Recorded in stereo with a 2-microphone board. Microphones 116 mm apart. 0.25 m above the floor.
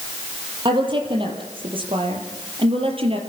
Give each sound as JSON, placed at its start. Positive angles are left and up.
{"t": 0.7, "sound": "a woman speaking", "side_deg": -45, "distance_m": 6.5}